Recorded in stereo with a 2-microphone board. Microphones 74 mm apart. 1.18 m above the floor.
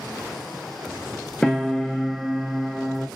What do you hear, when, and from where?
1.4 s a piano: 10° left (ahead or behind), 0.6 m